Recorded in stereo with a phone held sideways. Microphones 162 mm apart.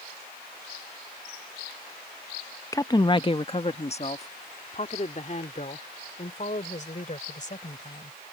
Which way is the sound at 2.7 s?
20° left (ahead or behind).